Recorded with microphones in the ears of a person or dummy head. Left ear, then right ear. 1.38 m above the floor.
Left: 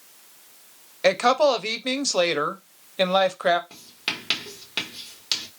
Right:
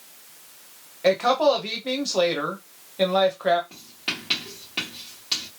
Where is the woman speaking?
75° left (ahead or behind), 0.7 m.